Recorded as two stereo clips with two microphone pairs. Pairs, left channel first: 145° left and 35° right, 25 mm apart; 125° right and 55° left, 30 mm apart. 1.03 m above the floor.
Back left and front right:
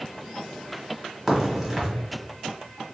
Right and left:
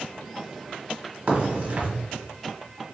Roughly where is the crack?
Ahead left.